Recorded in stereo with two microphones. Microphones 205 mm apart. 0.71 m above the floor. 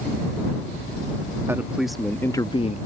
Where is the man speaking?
10° right (ahead or behind); by 2.8 s 35° left (ahead or behind).